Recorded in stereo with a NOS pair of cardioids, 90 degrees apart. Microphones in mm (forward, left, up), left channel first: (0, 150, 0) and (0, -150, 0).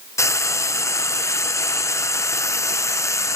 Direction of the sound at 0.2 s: 10° left.